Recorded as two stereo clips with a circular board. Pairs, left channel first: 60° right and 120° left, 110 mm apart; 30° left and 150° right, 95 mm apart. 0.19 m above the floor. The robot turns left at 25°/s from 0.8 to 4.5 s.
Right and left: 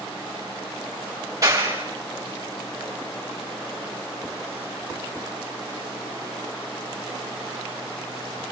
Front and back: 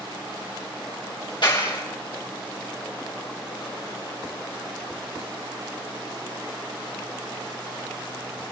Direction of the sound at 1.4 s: 65° left.